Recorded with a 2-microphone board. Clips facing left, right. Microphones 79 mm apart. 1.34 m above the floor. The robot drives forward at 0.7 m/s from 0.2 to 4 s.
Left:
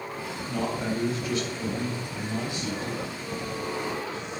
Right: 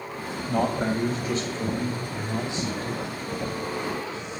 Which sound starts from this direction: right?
A man speaking, at 0.5 s.